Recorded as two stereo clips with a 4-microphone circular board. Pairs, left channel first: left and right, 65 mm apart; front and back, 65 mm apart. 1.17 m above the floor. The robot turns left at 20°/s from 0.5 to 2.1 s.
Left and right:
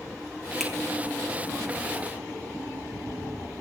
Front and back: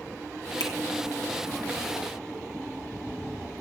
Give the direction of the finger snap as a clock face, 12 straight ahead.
12 o'clock.